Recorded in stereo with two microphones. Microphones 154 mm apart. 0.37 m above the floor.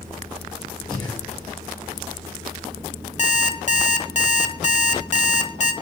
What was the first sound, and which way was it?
Breathing, 30° left (ahead or behind).